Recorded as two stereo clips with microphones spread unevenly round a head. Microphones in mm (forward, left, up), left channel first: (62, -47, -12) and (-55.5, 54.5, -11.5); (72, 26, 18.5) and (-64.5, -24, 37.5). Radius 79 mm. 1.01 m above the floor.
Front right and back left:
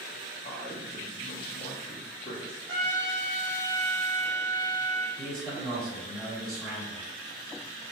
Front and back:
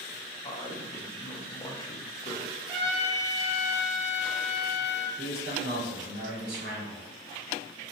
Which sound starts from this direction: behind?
A trumpet, at 2.7 s.